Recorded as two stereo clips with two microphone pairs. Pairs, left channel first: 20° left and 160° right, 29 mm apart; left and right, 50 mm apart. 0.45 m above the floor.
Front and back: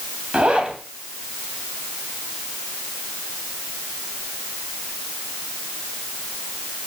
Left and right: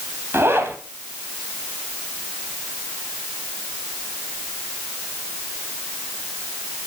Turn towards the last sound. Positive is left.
turn(degrees=-115)